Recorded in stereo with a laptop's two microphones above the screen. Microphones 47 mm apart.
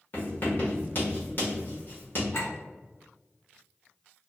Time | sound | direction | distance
0.1 | writing | 45° left (ahead or behind) | 1.1 m
2.3 | a clink | 70° left (ahead or behind) | 1.5 m